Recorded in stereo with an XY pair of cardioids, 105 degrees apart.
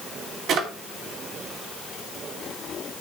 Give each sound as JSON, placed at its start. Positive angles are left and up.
{"t": 0.5, "sound": "a drawer", "azimuth_deg": -70, "distance_m": 3.0}